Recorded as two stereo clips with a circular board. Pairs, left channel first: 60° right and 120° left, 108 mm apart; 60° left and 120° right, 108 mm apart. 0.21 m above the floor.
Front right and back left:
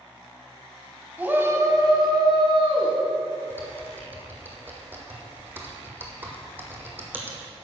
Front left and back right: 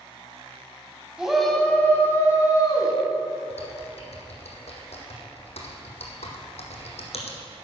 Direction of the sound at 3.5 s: 50° left.